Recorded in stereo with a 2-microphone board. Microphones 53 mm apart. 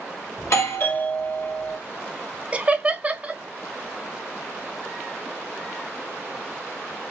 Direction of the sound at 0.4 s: 60° left (ahead or behind).